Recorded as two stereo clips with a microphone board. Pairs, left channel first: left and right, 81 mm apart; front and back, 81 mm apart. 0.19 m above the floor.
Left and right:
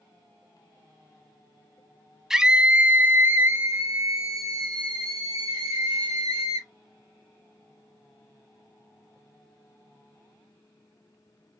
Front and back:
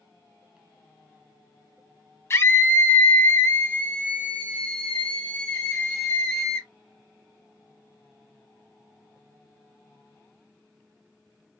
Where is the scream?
10° right, 1.2 m; by 6.7 s 80° right, 2.5 m.